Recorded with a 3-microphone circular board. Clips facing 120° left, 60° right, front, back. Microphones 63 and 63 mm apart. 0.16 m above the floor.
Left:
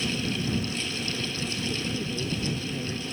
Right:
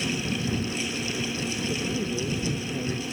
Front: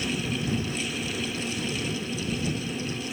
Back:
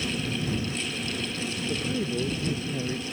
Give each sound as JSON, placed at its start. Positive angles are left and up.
{"t": 1.7, "sound": "a man speaking", "azimuth_deg": -135}